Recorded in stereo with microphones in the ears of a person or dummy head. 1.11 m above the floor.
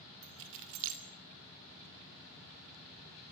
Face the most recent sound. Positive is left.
turn(degrees=-70)  # may be behind; listen again after turning